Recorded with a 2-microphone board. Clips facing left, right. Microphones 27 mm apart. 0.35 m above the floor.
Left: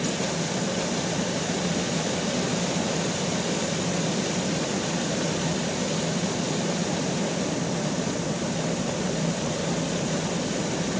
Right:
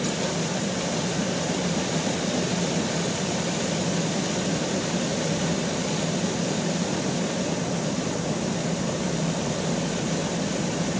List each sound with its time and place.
Only background noise.